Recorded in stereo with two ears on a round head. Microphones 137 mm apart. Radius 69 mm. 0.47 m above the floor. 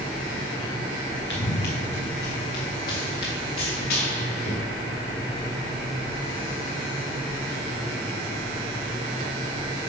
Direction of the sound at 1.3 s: 80° left.